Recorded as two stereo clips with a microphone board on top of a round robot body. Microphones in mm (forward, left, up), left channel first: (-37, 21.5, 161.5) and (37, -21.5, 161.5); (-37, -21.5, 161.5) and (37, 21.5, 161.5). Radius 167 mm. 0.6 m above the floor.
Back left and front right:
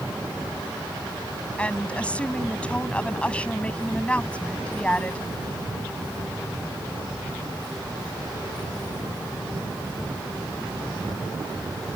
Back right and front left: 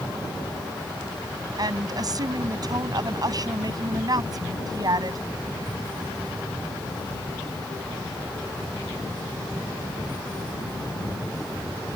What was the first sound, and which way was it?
A woman speaking, 75° left.